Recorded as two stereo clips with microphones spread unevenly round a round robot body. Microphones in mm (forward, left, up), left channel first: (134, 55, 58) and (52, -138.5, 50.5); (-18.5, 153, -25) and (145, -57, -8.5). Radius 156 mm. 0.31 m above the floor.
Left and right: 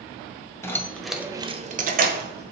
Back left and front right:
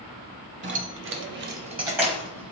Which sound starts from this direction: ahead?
Keys jangling, at 0.6 s.